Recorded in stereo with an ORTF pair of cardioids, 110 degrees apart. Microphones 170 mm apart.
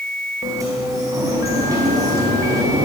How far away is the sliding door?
About 5 m.